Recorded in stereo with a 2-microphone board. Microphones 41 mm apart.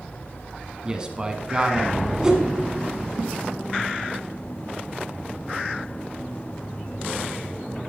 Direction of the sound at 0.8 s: 20° right (ahead or behind).